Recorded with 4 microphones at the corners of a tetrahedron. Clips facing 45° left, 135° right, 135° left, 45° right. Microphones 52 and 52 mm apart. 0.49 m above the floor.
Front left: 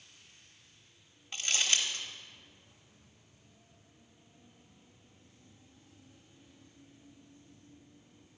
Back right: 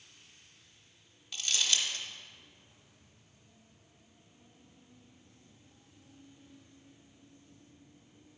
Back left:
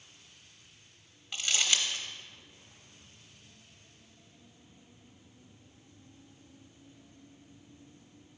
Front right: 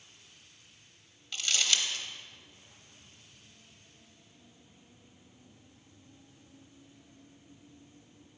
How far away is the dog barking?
I don't hear a dog barking.